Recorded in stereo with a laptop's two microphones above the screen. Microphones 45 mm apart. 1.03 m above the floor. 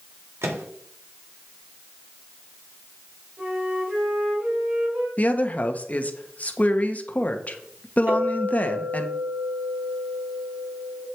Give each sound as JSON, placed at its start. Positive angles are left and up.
{"t": 0.4, "sound": "a microwave", "side_deg": -75, "distance_m": 1.6}
{"t": 3.4, "sound": "a flute", "side_deg": -40, "distance_m": 3.5}
{"t": 5.2, "sound": "a woman speaking", "side_deg": 35, "distance_m": 1.3}
{"t": 8.1, "sound": "a clink", "side_deg": -55, "distance_m": 5.5}